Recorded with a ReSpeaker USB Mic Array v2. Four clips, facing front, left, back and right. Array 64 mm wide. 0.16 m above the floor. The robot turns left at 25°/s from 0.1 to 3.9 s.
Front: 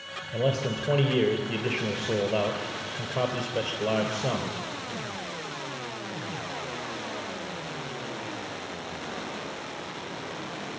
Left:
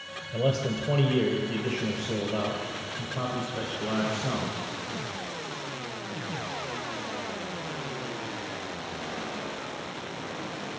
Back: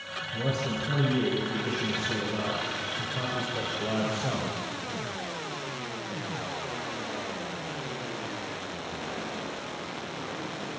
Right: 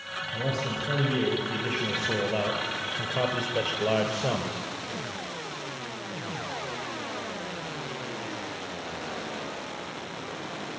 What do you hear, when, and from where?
0.3 s a man speaking: 25° left, 2.5 m; by 4.7 s 65° right, 2.5 m